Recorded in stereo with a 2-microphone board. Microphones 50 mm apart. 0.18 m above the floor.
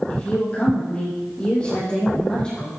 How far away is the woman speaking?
About 6.5 m.